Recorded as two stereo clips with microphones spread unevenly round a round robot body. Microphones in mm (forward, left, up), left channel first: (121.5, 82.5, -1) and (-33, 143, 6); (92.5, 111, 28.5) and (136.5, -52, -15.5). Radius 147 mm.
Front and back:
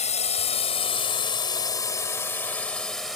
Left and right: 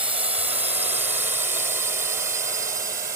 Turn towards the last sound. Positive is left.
turn(degrees=-115)